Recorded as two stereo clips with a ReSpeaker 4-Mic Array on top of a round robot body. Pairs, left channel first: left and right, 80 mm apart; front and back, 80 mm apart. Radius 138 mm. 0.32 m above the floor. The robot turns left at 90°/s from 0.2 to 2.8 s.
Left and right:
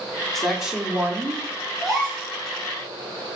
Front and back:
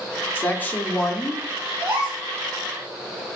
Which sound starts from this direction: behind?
A gasp, at 1.8 s.